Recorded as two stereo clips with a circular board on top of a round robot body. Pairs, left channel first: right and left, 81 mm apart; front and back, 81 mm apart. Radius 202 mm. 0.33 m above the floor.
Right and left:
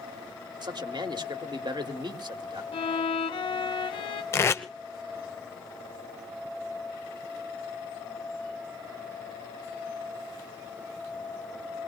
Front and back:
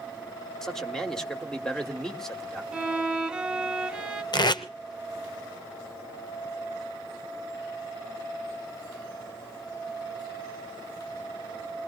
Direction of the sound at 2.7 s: 100° right.